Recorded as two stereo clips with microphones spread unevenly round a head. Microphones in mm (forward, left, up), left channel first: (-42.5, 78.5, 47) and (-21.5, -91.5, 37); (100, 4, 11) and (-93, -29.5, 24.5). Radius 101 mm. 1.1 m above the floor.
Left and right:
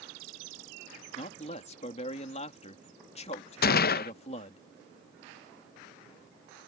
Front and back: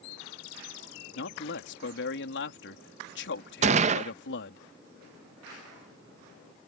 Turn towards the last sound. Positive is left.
turn(degrees=130)